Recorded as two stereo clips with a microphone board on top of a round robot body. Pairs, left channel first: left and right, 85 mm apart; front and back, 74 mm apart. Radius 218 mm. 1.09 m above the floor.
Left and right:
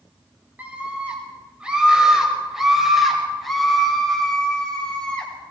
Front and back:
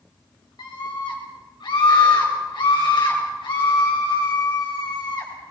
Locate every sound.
0.6 s a scream: 20° right, 7 m; by 5.3 s 15° left, 7 m